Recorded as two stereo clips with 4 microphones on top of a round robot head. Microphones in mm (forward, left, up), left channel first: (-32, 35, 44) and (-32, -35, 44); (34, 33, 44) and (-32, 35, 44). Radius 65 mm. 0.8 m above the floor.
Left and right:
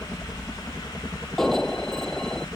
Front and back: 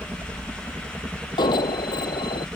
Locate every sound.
0.0 s a helicopter: 155° left
1.4 s an alarm: 5° left